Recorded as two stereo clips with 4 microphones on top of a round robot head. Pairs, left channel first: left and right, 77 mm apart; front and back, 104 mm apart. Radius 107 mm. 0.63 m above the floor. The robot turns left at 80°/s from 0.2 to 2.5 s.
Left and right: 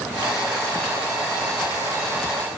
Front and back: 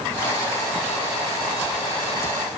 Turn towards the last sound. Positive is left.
No sound to turn to.